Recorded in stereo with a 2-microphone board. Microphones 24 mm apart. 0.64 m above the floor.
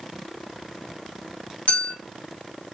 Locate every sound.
1.7 s a clink: 85° left, 1.6 m